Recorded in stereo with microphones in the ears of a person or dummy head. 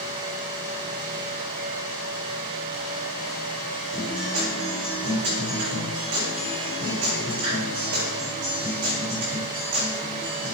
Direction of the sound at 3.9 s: 60° right (ahead or behind).